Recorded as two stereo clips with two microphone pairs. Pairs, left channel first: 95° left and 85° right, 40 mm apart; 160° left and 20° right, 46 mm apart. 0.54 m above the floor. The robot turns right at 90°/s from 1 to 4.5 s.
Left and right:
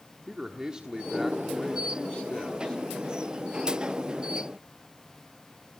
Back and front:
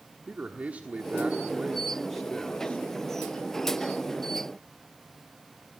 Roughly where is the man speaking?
Ahead right.